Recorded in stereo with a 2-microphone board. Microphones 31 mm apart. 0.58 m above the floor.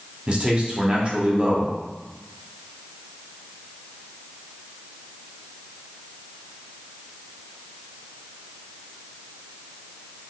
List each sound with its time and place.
0.3 s a man speaking: 35° right (ahead or behind), 1.2 m